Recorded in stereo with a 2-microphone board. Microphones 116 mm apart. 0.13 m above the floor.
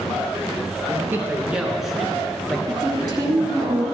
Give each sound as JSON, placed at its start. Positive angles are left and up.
{"t": 0.9, "sound": "a man speaking", "side_deg": -20, "distance_m": 1.7}
{"t": 2.7, "sound": "a woman speaking", "side_deg": -30, "distance_m": 1.6}